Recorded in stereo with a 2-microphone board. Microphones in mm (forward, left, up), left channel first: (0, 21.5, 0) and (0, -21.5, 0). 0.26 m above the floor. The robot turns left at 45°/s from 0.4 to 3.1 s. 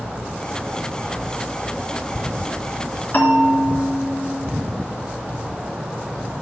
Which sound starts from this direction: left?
A bell, at 3.1 s.